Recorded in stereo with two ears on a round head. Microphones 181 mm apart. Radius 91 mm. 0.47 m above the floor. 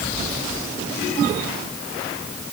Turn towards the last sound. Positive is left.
No sound to turn to.